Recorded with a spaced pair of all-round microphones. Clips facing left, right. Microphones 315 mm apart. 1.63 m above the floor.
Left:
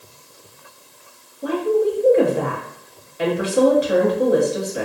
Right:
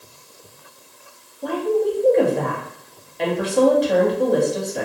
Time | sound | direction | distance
1.4 | a woman speaking | 5° left (ahead or behind) | 0.8 m